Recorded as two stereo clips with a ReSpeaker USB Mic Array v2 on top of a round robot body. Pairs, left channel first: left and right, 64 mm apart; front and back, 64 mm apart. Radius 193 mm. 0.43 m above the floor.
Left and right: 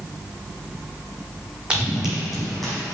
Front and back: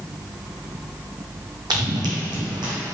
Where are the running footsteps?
165° right, 1.3 m; by 2.7 s 175° left, 1.5 m.